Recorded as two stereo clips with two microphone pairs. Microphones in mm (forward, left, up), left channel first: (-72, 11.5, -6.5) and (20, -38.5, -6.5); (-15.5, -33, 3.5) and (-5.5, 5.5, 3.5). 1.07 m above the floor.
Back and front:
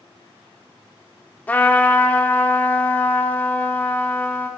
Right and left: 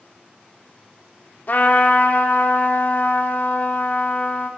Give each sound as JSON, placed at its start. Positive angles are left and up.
{"t": 1.5, "sound": "a trumpet", "azimuth_deg": -135, "distance_m": 1.1}